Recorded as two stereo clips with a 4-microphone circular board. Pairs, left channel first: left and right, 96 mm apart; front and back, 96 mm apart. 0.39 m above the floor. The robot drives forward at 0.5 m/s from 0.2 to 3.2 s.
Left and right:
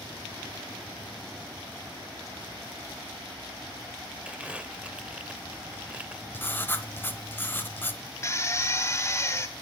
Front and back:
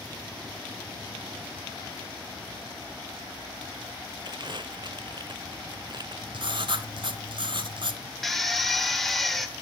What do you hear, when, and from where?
4.2 s crumpling: 165° right, 0.7 m
6.3 s writing: 155° left, 1.0 m
8.2 s a drill: 85° left, 1.4 m